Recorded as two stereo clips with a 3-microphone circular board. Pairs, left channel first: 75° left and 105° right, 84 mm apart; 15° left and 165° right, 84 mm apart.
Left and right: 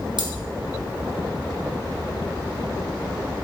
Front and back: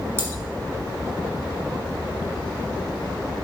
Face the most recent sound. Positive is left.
turn(degrees=-105)